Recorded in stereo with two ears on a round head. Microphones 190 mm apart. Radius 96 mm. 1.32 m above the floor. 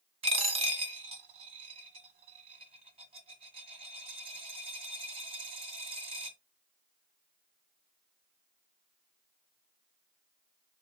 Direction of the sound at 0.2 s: 25° right (ahead or behind).